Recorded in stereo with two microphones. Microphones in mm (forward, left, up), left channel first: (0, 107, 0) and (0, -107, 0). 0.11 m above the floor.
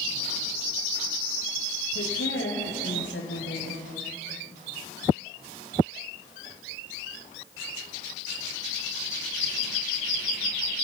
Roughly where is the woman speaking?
Left.